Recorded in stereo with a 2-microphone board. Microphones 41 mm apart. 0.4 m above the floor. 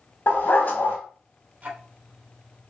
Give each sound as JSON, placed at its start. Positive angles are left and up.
{"t": 0.3, "sound": "a dog barking", "side_deg": 55, "distance_m": 0.9}
{"t": 1.6, "sound": "ticking", "side_deg": -40, "distance_m": 0.8}